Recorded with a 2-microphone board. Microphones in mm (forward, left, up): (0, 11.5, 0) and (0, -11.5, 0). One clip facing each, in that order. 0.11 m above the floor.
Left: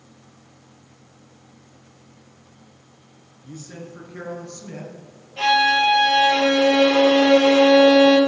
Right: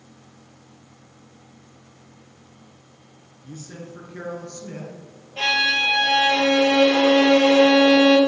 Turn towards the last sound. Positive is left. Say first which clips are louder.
# left 3 dB
turn(degrees=-15)  # may be behind; listen again after turning